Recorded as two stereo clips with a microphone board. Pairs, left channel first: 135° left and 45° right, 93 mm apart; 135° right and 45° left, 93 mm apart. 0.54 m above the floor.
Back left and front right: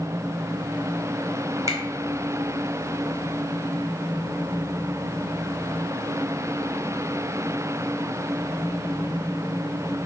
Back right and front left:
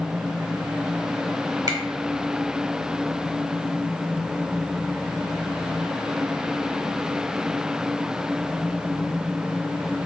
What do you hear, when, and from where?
1.7 s a finger snap: 5° left, 1.0 m